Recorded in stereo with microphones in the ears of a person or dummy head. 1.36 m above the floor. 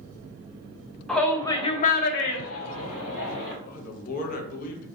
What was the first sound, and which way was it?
A shout, centre (ahead or behind).